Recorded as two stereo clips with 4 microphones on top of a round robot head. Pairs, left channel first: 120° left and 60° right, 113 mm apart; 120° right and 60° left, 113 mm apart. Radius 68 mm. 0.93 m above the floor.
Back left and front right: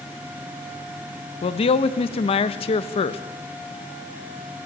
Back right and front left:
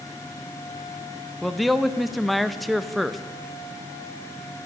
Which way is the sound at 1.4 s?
150° left.